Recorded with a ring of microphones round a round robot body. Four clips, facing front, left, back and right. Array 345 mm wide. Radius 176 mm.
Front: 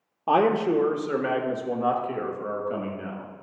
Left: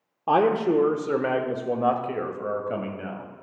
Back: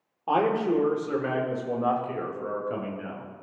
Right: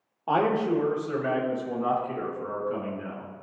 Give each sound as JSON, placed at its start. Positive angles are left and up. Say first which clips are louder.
{"t": 0.3, "sound": "a man speaking", "louder": "left 3 dB, front 3 dB", "azimuth_deg": 45, "distance_m": 0.9}